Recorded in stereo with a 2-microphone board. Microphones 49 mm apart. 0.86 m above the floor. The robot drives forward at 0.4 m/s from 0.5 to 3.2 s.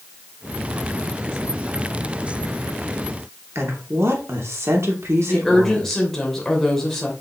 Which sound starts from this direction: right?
A woman speaking, at 3.5 s.